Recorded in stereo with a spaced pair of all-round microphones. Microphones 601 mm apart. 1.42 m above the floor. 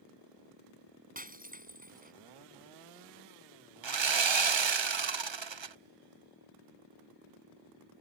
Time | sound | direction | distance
1.1 | breaking glass | 15° right (ahead or behind) | ?
3.8 | sawing | 50° right (ahead or behind) | ?